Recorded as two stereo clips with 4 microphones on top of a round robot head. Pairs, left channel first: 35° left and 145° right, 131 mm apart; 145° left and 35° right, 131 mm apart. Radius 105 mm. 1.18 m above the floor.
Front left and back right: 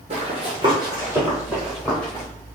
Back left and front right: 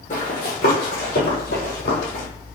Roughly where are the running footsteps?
Behind.